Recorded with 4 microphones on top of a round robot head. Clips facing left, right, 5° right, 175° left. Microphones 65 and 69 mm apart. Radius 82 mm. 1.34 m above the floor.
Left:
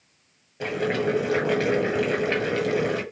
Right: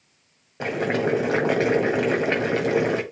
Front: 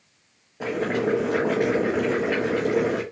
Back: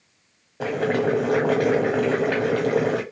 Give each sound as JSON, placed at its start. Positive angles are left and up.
{"t": 0.6, "sound": "boiling", "azimuth_deg": -140, "distance_m": 1.4}